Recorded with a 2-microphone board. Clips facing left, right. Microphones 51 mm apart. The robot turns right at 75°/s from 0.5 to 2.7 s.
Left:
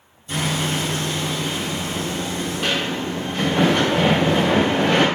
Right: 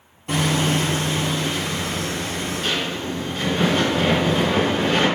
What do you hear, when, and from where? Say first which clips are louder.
0.3 s hammering: right 3 dB; 75° right, 2 m; by 5.0 s 90° left, 2 m